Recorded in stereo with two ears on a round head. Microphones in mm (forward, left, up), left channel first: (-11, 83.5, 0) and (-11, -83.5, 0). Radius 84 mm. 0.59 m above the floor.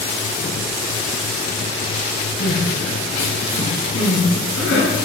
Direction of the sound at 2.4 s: 75° left (ahead or behind).